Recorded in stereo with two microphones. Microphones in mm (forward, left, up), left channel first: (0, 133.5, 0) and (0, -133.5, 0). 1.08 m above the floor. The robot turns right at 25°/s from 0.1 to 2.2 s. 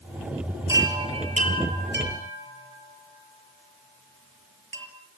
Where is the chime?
10° right (ahead or behind), 5.5 m; by 4.9 s 50° right (ahead or behind), 5.5 m.